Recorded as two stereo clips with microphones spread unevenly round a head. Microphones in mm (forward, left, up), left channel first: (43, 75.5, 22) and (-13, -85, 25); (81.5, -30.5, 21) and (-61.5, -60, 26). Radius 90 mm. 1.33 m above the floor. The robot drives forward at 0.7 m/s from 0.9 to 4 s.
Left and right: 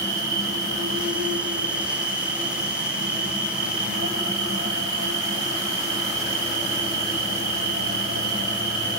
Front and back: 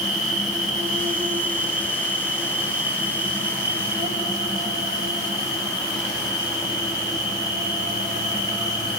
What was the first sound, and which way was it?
An insect, 135° right.